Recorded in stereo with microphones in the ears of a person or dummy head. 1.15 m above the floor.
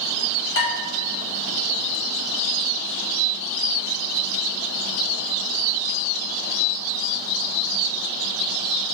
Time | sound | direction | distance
0.6 | dishes clattering | 75° left (ahead or behind) | 1.5 m